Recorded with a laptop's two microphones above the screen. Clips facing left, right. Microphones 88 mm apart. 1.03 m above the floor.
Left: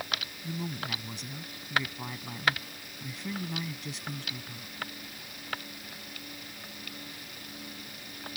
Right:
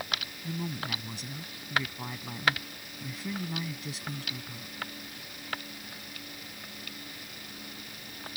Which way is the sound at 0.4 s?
Centre (ahead or behind).